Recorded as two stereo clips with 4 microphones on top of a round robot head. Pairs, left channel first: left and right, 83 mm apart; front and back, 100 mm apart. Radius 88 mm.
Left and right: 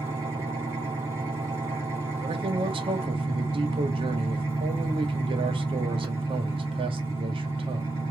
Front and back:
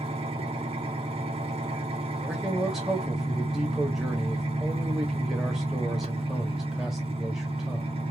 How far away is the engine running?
About 2.5 m.